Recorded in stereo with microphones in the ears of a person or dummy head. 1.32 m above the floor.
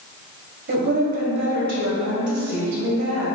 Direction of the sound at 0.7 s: 45° right (ahead or behind).